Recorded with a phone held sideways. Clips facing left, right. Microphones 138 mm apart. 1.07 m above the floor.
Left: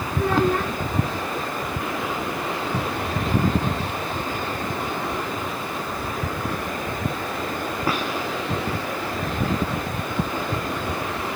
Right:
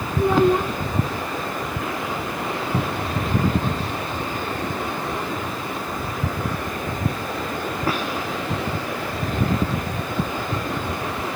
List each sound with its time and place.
0.2 s a child speaking: 15° right (ahead or behind)
2.7 s a cupboard door: 10° right (ahead or behind)